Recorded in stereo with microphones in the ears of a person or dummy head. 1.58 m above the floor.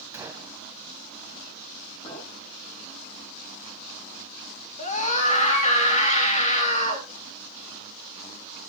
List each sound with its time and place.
0.1 s a gunshot: 10° right (ahead or behind), 3 m
2.0 s a clink: 30° left (ahead or behind), 9 m
4.8 s a scream: 40° left (ahead or behind), 3.5 m